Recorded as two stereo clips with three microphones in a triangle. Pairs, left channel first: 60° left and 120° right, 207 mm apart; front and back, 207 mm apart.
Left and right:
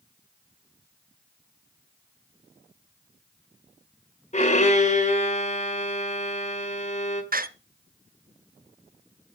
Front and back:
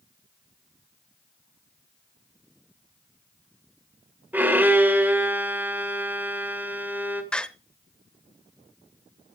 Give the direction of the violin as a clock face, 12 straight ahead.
9 o'clock.